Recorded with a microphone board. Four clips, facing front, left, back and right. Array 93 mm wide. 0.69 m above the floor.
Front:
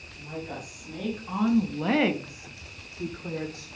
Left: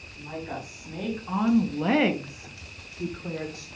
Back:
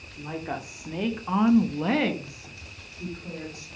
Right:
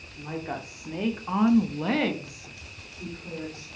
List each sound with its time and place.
0.2 s a woman speaking: 145° right, 2.0 m; by 3.7 s 40° left, 2 m